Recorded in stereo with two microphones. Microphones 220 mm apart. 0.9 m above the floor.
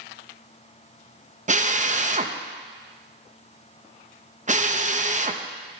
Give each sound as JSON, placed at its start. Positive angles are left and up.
{"t": 1.5, "sound": "a drill", "side_deg": -35, "distance_m": 0.7}